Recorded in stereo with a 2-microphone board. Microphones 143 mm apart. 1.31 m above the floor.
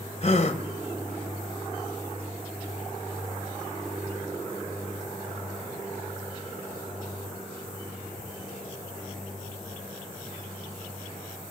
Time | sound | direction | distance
0.2 | a gasp | 40° left (ahead or behind) | 1.1 m